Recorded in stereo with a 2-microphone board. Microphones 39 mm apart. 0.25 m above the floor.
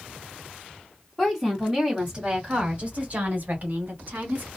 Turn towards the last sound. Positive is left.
turn(degrees=-55)  # may be behind; listen again after turning